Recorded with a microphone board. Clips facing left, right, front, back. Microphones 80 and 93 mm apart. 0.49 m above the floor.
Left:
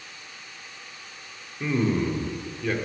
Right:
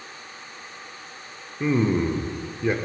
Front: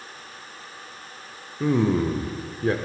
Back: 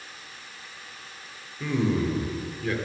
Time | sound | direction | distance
1.6 | a man speaking | 30° right | 1.0 m